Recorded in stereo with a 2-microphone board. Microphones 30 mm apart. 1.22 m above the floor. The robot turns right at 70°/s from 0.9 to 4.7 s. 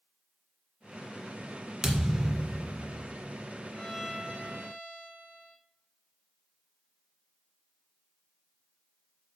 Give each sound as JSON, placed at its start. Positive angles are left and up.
{"t": 1.8, "sound": "a thud", "azimuth_deg": -25, "distance_m": 1.7}
{"t": 3.7, "sound": "a violin", "azimuth_deg": 160, "distance_m": 1.2}